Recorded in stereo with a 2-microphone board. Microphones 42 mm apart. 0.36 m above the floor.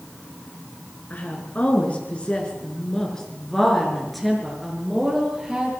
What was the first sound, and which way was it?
A woman speaking, 45° left (ahead or behind).